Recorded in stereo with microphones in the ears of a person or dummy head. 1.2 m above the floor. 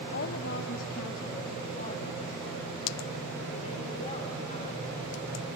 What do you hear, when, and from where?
0.1 s a woman speaking: 60° left (ahead or behind), 1.1 m; by 5.5 s 40° left (ahead or behind), 4.5 m